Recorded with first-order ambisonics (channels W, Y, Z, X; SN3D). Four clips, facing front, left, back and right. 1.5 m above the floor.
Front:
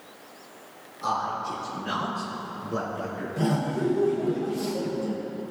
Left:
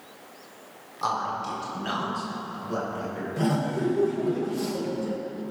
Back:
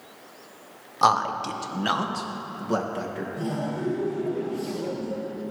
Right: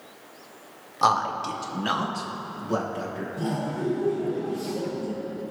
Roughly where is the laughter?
Ahead left.